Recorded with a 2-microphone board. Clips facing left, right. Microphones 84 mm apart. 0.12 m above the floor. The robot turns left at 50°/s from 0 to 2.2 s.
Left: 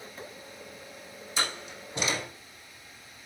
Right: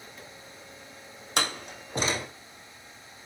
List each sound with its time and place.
1.4 s a door slam: 70° right (ahead or behind), 3.5 m; by 2.3 s 30° right (ahead or behind), 3.5 m